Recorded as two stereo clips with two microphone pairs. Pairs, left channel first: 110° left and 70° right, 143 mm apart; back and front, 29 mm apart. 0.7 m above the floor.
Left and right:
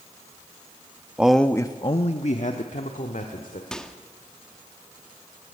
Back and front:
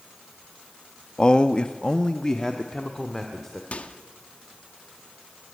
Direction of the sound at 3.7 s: 165° right.